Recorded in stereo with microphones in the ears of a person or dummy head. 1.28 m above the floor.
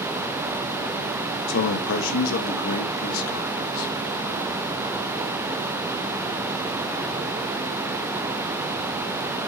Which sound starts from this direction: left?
A man speaking, at 1.5 s.